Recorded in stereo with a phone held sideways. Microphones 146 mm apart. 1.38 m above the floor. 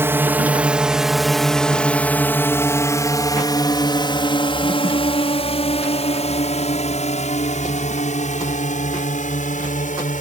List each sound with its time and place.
0.0 s a drone: 15° right (ahead or behind); by 10.2 s 60° left (ahead or behind)